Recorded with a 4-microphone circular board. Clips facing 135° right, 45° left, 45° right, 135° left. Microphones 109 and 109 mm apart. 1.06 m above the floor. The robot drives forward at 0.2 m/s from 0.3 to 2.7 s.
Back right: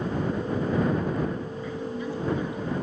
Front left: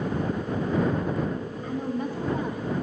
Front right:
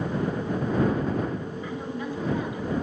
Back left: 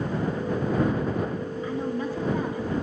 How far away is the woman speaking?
About 1.5 m.